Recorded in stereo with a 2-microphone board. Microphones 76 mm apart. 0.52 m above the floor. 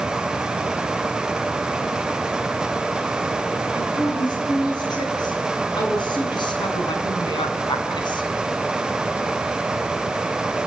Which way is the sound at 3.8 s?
65° left (ahead or behind).